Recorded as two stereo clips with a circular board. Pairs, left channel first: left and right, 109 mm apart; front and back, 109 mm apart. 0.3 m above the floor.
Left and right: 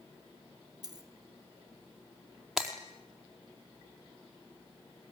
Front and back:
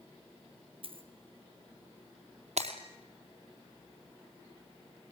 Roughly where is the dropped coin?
Behind right.